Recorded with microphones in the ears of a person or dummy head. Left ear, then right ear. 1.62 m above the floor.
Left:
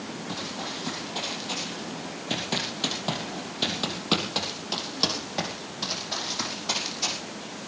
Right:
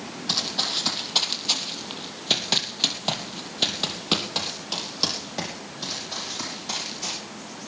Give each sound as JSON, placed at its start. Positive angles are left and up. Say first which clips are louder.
{"t": 0.3, "sound": "running footsteps", "louder": "right 11 dB", "side_deg": -65, "distance_m": 4.0}